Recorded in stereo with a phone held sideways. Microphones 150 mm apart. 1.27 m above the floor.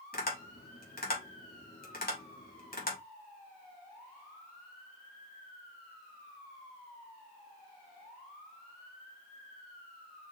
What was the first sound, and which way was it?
Tapping, 75° left (ahead or behind).